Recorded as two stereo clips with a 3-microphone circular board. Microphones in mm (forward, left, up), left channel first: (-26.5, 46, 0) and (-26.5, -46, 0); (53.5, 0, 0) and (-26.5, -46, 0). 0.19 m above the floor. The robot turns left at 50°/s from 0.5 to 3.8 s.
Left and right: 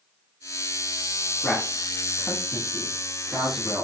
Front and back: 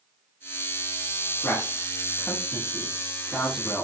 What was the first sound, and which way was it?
A man speaking, 60° left.